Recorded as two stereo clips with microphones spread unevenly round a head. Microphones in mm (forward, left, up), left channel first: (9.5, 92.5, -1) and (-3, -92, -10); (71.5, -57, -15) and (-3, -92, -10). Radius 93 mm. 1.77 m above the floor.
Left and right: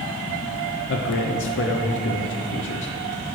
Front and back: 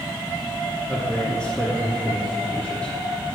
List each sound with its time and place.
0.9 s a man speaking: 110° left, 0.8 m